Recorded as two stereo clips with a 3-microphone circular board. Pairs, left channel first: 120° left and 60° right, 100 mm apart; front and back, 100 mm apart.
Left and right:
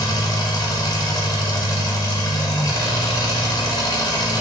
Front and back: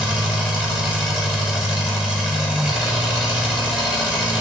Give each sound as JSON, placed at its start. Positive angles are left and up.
{"t": 0.0, "sound": "an engine running", "azimuth_deg": 105, "distance_m": 0.8}